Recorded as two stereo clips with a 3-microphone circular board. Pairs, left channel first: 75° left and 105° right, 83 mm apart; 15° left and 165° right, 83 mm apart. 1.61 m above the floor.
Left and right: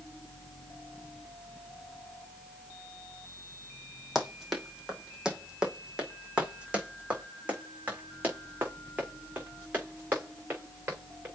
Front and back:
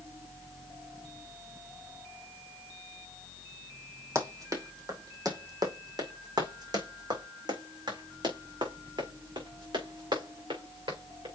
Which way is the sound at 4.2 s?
165° left.